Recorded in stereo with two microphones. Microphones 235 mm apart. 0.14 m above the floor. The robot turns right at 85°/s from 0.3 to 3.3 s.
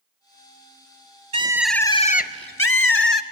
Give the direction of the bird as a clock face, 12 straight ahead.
1 o'clock.